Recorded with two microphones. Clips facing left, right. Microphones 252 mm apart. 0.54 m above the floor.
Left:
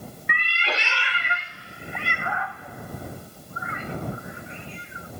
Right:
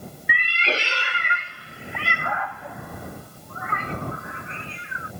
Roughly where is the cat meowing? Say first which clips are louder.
Right 4 dB; centre.